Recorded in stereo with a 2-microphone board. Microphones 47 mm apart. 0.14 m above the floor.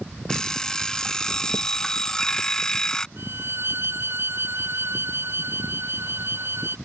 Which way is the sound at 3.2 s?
55° right (ahead or behind).